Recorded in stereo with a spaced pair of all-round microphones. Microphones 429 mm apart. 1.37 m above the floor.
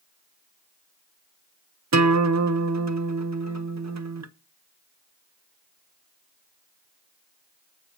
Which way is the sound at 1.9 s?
35° right (ahead or behind).